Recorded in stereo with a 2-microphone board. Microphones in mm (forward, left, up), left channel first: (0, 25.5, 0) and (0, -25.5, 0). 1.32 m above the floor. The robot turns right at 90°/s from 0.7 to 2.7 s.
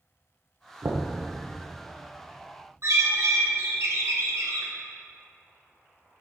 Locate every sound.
0.8 s knocking: 70° right (ahead or behind), 0.8 m; by 1.1 s 85° right, 0.8 m
2.8 s a bird: 60° right (ahead or behind), 1.2 m